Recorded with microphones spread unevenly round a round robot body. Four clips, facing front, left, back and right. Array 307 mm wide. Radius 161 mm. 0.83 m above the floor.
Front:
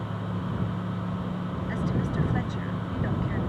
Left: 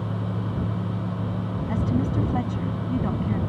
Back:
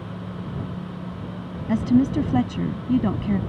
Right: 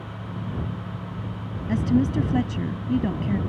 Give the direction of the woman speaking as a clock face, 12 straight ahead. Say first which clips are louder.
Right 5 dB, back 13 dB; 6 o'clock.